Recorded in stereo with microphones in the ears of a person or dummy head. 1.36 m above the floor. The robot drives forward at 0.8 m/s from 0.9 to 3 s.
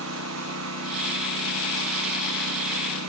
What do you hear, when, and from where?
0.0 s a lawn mower: 75° right (ahead or behind); by 3.1 s 80° right